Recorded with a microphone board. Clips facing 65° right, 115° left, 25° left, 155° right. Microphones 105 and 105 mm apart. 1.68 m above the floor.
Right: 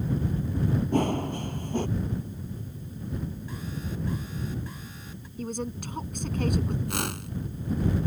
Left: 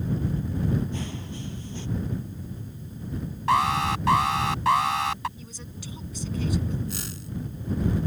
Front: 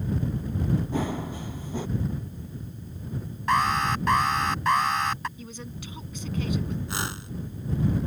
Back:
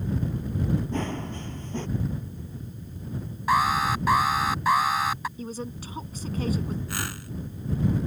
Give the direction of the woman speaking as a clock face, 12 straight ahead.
3 o'clock.